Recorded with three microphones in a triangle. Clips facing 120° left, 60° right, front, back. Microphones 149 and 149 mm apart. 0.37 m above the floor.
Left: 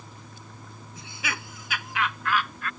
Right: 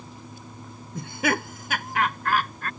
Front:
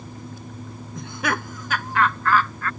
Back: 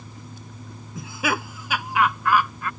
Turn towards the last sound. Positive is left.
turn(degrees=-105)